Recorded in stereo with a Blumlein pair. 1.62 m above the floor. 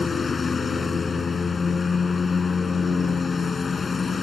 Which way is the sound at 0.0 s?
15° left.